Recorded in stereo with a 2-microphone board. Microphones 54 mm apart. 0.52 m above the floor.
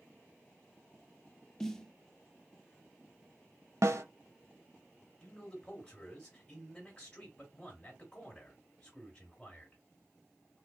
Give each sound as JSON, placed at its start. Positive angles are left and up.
{"t": 1.6, "sound": "a snare drum", "side_deg": 10, "distance_m": 0.6}
{"t": 3.8, "sound": "a snare drum", "side_deg": -65, "distance_m": 0.6}
{"t": 5.2, "sound": "a man speaking", "side_deg": 10, "distance_m": 2.5}